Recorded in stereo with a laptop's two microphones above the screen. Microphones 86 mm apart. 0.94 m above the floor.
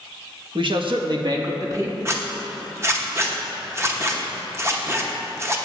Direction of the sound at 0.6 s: 60° right (ahead or behind).